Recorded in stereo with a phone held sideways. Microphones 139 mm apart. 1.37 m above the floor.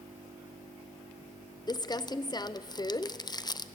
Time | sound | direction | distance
1.7 | crumpling | 30° left (ahead or behind) | 0.6 m